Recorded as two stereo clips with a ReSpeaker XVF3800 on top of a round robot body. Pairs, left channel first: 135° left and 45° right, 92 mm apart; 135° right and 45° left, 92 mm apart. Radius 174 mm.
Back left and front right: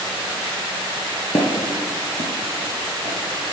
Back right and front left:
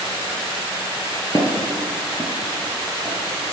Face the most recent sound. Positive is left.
turn(degrees=-40)